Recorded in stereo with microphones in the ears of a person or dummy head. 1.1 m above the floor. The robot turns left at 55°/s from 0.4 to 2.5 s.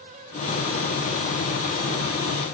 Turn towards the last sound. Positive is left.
No sound to turn to.